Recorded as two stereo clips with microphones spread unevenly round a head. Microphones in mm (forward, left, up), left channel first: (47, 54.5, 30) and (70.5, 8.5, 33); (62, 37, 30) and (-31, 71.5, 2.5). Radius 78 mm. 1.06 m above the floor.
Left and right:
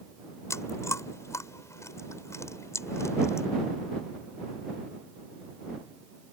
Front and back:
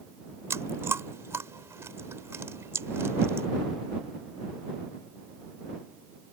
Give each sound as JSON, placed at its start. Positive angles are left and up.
{"t": 0.5, "sound": "chewing", "azimuth_deg": 95}